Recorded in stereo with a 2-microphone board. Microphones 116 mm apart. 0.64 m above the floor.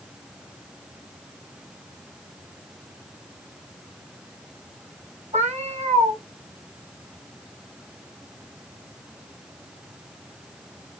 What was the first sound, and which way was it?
A cat meowing, 85° right.